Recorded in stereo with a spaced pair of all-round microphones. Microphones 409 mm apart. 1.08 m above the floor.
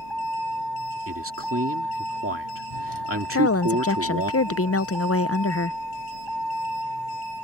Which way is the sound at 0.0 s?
70° right (ahead or behind).